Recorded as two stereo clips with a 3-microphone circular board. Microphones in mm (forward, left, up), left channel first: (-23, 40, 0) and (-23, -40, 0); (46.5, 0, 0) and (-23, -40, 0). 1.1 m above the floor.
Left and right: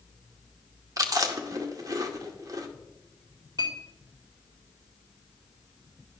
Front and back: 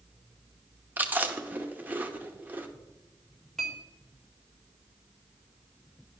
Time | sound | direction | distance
1.0 | chewing | 90° right | 0.8 m
3.6 | a clink | 60° right | 2 m